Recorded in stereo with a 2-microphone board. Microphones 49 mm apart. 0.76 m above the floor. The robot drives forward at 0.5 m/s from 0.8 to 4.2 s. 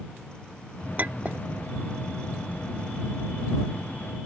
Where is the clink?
40° right (ahead or behind); by 1.5 s 30° right (ahead or behind).